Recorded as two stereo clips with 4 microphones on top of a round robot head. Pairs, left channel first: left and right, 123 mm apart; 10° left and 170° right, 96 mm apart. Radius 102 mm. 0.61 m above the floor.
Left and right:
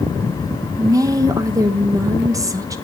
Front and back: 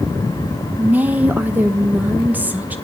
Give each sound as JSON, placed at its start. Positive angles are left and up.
{"t": 0.8, "sound": "a woman speaking", "azimuth_deg": -115, "distance_m": 0.6}